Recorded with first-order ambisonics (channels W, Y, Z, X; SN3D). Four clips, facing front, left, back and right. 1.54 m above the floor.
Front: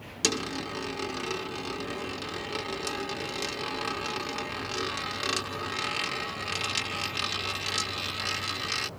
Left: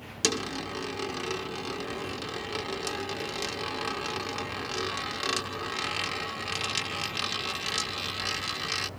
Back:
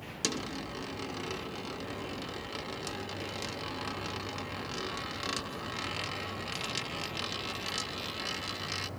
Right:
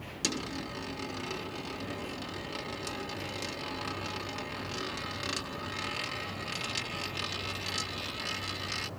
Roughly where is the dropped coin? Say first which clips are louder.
Left 5 dB, front 6 dB; ahead left.